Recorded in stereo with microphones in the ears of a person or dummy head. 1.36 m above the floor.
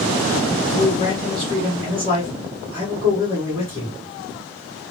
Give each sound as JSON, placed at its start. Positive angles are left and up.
{"t": 0.6, "sound": "a man speaking", "side_deg": -20, "distance_m": 1.5}